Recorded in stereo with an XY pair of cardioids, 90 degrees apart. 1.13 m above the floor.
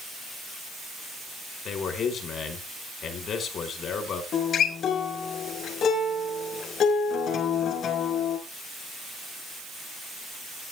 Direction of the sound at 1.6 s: 70° left.